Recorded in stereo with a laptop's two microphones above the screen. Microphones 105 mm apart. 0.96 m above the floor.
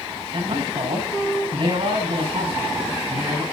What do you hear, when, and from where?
0.3 s a man speaking: 60° right (ahead or behind), 8.5 m